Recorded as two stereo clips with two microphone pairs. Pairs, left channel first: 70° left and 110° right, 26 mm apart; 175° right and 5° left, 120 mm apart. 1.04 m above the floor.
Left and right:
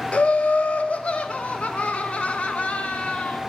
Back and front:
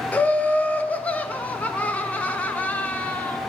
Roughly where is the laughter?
Left.